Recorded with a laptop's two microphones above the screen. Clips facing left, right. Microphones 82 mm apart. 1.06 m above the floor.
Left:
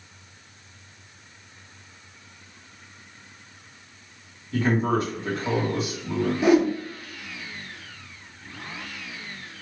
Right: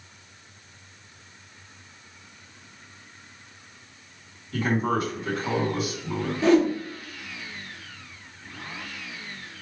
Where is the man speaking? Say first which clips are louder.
Left 2 dB; 35° left (ahead or behind), 1.8 m.